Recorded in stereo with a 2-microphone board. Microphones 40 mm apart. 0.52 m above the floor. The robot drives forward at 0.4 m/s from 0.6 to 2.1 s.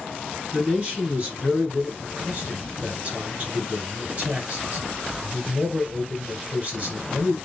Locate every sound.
0.5 s a man speaking: 40° right (ahead or behind), 2.5 m; by 7.3 s 45° right (ahead or behind), 2 m